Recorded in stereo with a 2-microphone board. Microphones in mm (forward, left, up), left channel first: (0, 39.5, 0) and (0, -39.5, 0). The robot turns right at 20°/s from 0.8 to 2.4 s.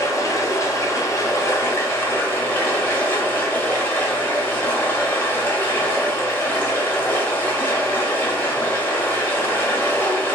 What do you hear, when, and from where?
0.0 s running water: 110° left, 1.0 m; by 10.3 s 140° left, 1.0 m